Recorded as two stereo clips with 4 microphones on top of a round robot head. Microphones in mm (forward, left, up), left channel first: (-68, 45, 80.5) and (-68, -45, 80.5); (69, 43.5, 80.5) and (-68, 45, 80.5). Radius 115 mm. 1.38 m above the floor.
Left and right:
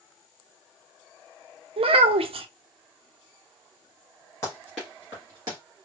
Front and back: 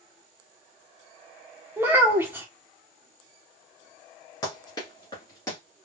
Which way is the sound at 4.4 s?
35° left.